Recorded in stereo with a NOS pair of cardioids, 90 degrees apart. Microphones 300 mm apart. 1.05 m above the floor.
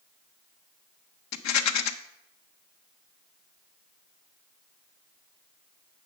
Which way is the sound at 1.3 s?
65° left.